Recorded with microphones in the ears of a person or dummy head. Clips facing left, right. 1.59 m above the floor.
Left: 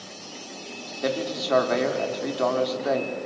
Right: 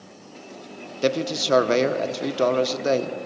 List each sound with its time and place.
1.0 s a man speaking: 35° right (ahead or behind), 1.0 m